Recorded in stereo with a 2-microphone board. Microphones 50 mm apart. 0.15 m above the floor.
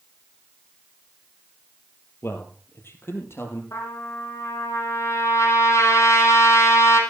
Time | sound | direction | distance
2.2 | a man speaking | 55° left (ahead or behind) | 4 m
3.7 | a trumpet | 75° left (ahead or behind) | 5.5 m